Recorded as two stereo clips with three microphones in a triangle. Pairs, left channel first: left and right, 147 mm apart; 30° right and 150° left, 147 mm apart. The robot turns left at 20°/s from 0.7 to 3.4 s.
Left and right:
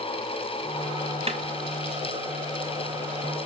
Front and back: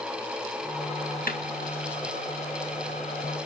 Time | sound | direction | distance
1.3 | a snare drum | 40° right | 1.5 m